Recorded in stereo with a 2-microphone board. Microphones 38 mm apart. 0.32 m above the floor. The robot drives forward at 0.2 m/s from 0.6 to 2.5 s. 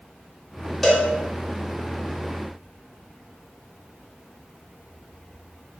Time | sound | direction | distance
0.8 | a cowbell | 10° left (ahead or behind) | 0.7 m